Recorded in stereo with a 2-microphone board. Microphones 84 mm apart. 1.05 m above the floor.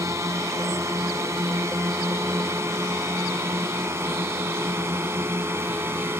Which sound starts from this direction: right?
A drone, at 0.0 s.